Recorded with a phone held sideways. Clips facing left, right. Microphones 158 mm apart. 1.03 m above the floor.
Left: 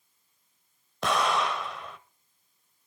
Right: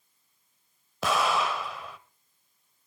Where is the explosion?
5° right (ahead or behind), 0.9 m.